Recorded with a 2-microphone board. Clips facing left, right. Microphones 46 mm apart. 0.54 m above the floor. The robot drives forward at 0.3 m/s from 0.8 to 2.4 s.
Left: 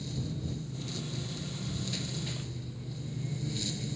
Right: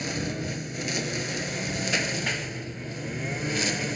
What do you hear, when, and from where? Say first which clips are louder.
0.0 s a lawn mower: right 8 dB; 80° right; by 4.0 s 75° right (ahead or behind)